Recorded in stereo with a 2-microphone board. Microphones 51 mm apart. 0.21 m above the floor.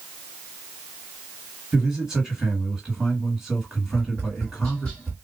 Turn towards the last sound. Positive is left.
turn(degrees=15)  # may be behind; listen again after turning